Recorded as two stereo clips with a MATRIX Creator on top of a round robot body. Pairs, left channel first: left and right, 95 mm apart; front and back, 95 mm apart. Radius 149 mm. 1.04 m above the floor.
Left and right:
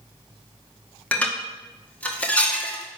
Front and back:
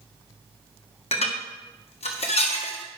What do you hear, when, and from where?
1.1 s dishes clattering: 15° left, 1.6 m